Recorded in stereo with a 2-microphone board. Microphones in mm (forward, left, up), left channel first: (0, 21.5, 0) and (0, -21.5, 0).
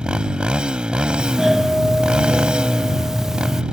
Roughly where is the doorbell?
Centre.